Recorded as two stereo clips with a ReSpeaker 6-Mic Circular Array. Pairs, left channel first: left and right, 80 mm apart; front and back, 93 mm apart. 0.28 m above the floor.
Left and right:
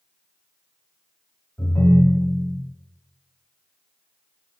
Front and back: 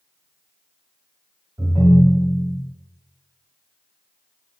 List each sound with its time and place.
1.6 s a ringtone: 140° left, 1.2 m